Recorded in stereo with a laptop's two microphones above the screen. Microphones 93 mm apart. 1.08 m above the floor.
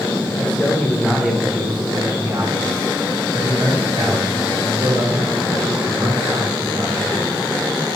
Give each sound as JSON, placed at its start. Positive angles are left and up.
{"t": 0.4, "sound": "a man speaking", "side_deg": 15, "distance_m": 1.2}